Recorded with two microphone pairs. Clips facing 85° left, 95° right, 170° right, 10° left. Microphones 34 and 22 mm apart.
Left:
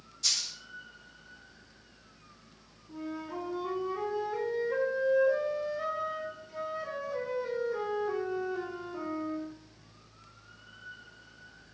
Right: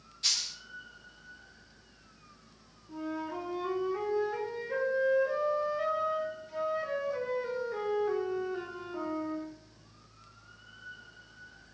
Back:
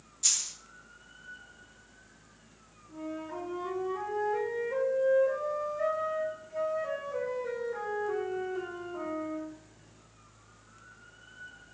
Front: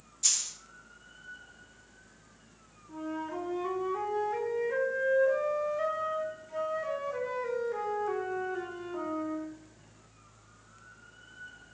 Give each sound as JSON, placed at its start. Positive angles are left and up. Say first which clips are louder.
{"t": 0.2, "sound": "a dropped coin", "louder": "even, even", "azimuth_deg": -80, "distance_m": 0.9}
{"t": 2.9, "sound": "a flute", "louder": "right 2 dB, front 2 dB", "azimuth_deg": -25, "distance_m": 0.7}